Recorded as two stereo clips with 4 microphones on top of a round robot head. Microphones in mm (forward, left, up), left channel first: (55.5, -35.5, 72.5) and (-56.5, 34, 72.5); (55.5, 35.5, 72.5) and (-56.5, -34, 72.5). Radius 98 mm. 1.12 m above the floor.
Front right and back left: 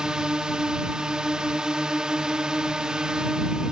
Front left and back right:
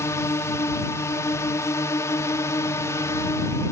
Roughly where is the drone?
Left.